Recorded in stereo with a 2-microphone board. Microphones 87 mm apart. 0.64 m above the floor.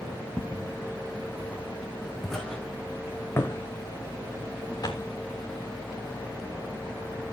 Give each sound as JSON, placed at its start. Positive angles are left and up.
{"t": 0.4, "sound": "footsteps", "side_deg": -40, "distance_m": 2.5}